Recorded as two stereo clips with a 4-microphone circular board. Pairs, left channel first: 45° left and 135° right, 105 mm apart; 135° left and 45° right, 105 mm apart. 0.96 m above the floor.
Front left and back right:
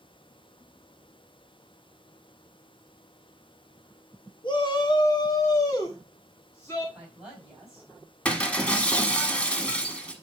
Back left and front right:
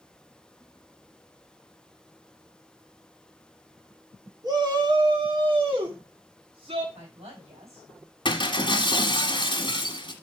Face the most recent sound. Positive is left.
turn(degrees=120)